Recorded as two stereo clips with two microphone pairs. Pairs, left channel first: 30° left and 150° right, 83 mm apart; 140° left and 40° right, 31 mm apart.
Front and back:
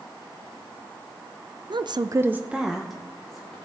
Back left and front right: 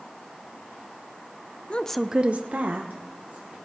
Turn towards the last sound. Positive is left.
turn(degrees=-55)